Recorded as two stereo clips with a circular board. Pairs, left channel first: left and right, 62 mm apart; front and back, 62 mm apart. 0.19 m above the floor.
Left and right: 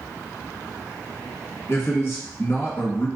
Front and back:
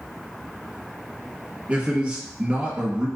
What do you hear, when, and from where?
1.7 s a man speaking: 110° left, 1.4 m